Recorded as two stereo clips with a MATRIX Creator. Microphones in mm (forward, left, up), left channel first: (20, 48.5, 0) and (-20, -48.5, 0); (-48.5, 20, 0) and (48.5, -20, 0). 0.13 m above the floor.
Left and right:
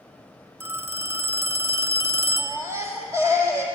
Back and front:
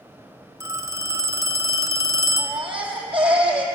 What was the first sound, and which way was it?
A phone ringing, 60° right.